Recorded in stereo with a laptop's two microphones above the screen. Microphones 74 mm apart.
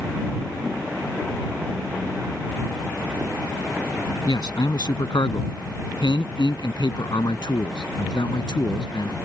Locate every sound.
4.3 s a man speaking: 70° left (ahead or behind); by 9.2 s 85° left